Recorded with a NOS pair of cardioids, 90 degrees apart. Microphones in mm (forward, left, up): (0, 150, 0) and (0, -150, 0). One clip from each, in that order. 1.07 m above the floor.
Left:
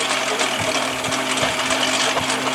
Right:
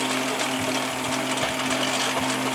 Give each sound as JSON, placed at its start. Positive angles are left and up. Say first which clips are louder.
{"t": 0.0, "sound": "a lawn mower", "louder": "left 5 dB", "azimuth_deg": 45}